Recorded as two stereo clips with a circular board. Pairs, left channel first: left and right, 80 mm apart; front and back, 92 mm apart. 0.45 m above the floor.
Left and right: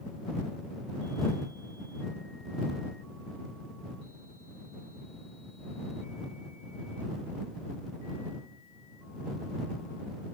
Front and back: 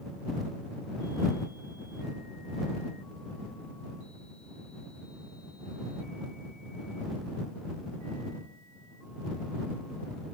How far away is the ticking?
I don't hear ticking.